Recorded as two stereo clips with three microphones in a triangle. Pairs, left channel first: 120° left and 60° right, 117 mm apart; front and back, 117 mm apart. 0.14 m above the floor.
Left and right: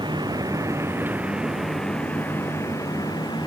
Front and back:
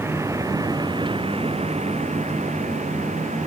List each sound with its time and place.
0.0 s a vehicle: 110° right; by 3.5 s 170° left